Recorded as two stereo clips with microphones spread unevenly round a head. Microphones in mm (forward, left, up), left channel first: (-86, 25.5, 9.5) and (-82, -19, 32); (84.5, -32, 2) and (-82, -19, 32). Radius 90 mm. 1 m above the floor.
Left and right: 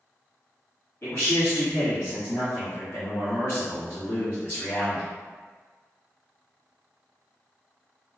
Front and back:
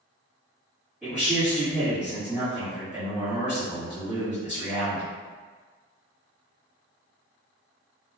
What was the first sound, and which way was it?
A man speaking, 80° left.